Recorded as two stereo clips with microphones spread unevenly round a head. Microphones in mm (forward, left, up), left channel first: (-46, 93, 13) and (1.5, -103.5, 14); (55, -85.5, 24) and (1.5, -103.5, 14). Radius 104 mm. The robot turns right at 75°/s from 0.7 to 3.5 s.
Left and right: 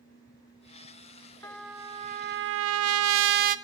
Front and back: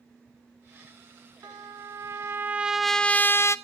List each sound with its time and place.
1.4 s a trumpet: straight behind, 0.6 m; by 3.5 s 25° right, 0.6 m